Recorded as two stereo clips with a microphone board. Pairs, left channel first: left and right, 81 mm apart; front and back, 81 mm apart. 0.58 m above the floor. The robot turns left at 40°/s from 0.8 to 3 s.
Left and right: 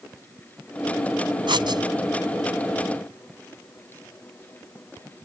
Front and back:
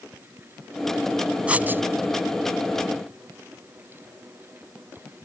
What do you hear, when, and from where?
1.5 s writing: 105° right; by 1.8 s 120° right